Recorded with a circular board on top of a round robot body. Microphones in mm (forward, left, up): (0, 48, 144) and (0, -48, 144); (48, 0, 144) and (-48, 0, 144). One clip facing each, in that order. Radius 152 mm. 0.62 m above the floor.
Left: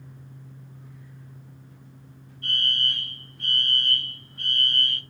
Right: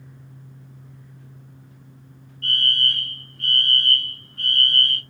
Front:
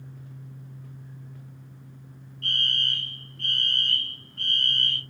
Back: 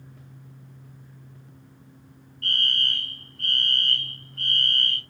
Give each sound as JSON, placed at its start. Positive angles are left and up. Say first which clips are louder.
{"t": 2.4, "sound": "a fire alarm", "louder": "right 4 dB, back 2 dB", "azimuth_deg": 175, "distance_m": 3.0}